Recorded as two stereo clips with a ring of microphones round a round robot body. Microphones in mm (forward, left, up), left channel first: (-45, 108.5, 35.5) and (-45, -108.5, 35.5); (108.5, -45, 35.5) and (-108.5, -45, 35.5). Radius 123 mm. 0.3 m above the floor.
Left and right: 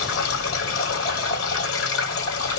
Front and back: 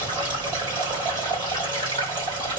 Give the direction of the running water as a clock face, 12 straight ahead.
8 o'clock.